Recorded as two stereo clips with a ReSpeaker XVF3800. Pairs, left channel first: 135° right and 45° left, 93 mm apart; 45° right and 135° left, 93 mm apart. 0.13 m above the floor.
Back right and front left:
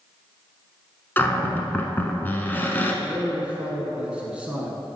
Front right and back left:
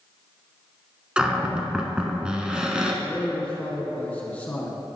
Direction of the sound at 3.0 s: 5° right.